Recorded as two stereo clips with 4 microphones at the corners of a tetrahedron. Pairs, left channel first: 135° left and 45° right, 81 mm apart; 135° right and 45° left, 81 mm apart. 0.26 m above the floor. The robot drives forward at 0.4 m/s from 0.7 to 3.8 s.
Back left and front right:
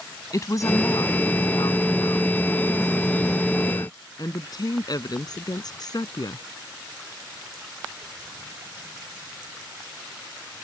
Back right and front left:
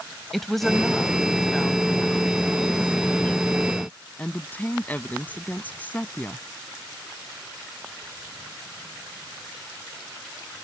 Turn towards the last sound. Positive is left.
turn(degrees=160)